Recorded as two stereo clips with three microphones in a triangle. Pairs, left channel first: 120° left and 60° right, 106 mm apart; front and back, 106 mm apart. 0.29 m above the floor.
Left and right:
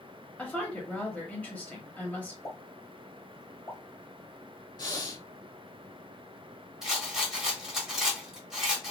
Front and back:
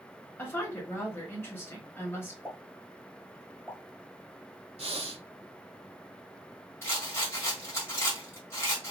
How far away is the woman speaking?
About 1.2 m.